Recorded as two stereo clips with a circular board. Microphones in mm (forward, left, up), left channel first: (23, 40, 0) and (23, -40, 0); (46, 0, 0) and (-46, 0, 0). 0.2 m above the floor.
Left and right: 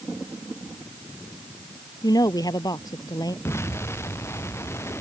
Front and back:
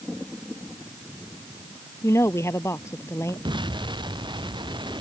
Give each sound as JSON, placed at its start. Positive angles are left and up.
{"t": 2.0, "sound": "a woman speaking", "azimuth_deg": 60}
{"t": 3.5, "sound": "an explosion", "azimuth_deg": 150}